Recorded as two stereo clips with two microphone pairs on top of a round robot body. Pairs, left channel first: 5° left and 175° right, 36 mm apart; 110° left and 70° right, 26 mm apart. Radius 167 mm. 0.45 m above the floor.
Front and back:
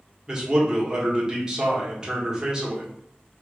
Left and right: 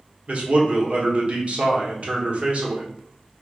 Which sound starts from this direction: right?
A man speaking, at 0.3 s.